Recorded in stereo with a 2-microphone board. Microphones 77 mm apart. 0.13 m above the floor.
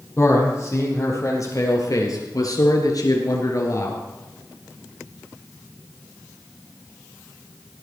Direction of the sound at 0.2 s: 40° left (ahead or behind).